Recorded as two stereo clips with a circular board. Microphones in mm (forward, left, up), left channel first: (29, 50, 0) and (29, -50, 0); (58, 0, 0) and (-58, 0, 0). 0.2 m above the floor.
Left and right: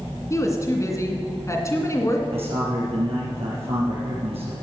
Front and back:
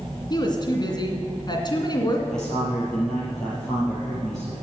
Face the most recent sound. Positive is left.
turn(degrees=-85)